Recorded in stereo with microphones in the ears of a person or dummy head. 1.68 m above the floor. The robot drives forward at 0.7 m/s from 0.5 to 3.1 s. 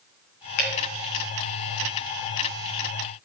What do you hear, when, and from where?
0.6 s dripping: 55° left (ahead or behind), 3 m; by 1.2 s 50° left (ahead or behind), 3 m